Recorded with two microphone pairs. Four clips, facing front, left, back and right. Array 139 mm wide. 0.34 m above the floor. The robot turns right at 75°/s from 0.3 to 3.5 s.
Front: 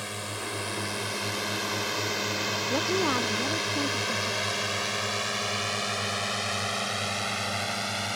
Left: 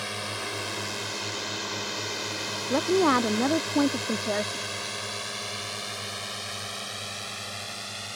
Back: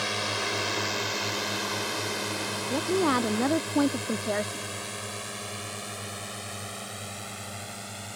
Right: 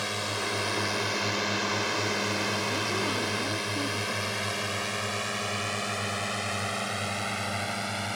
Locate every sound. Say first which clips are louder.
0.0 s a drone: right 2 dB, back 5 dB; 155° right; by 8.2 s 35° right
2.7 s a woman speaking: left 8 dB, back 3 dB; 70° left; by 4.6 s 130° left